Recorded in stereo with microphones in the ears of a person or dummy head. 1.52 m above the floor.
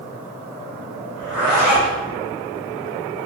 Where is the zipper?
10° right (ahead or behind), 1.8 m.